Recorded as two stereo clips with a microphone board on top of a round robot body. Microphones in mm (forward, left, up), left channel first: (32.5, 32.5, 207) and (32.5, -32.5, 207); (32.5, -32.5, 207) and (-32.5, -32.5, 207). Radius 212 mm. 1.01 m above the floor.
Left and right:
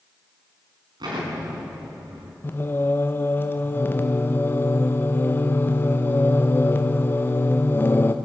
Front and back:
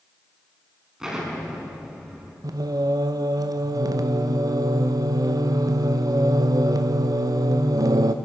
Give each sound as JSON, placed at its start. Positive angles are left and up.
{"t": 1.0, "sound": "an explosion", "azimuth_deg": -100, "distance_m": 4.0}
{"t": 2.4, "sound": "singing", "azimuth_deg": 150, "distance_m": 0.7}